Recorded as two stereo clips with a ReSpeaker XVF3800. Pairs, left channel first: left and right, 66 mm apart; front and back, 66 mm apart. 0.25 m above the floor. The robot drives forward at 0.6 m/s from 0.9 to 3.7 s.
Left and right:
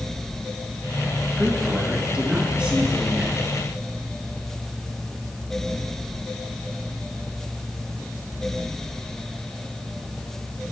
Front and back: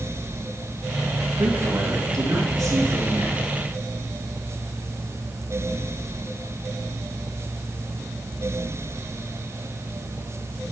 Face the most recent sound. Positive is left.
turn(degrees=-165)